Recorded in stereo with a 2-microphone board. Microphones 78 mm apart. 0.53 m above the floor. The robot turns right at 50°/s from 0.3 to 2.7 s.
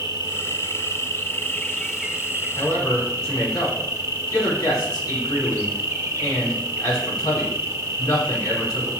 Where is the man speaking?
55° left (ahead or behind), 3.5 m; by 8.9 s 60° left (ahead or behind), 3.5 m.